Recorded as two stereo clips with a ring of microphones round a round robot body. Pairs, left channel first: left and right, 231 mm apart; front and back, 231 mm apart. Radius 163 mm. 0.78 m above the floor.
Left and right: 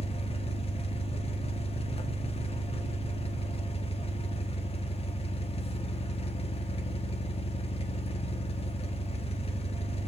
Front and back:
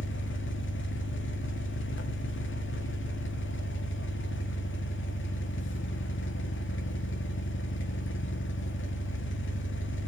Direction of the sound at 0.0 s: 25° left.